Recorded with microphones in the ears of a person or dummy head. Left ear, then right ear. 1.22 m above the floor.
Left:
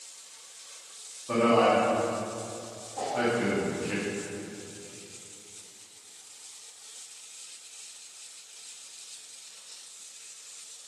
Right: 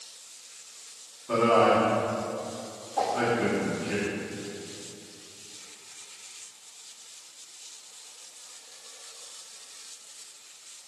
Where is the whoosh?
35° right (ahead or behind), 1.3 m.